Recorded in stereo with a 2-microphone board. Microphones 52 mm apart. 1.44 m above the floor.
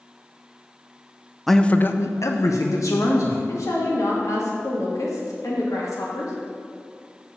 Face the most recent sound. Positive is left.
turn(degrees=80)